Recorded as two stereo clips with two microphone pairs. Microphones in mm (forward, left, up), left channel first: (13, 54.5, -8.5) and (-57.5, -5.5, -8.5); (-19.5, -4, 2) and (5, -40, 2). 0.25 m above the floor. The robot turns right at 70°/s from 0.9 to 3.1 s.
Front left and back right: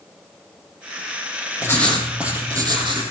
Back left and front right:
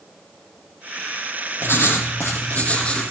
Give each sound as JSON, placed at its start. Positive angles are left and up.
{"t": 1.6, "sound": "writing", "azimuth_deg": 100, "distance_m": 5.0}